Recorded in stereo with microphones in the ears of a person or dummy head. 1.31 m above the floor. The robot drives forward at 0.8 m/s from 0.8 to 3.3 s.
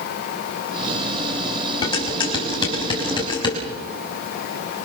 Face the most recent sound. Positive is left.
turn(degrees=20)  # may be behind; listen again after turning